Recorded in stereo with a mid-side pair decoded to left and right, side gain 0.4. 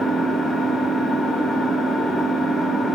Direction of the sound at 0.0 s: 60° left.